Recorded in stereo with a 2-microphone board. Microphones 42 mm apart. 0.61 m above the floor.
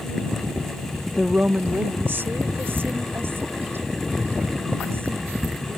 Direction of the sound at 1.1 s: 15° left (ahead or behind).